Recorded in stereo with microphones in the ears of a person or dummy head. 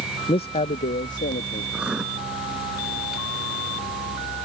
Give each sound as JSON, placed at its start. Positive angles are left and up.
{"t": 0.3, "sound": "a man speaking", "side_deg": 25}
{"t": 1.7, "sound": "writing", "side_deg": -5}